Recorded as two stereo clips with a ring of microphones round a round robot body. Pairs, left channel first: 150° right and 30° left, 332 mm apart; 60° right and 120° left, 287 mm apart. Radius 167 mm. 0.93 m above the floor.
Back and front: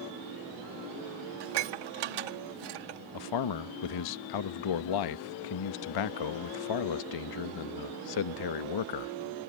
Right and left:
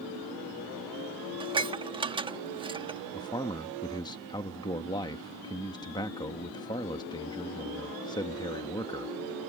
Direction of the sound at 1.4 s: 45° left.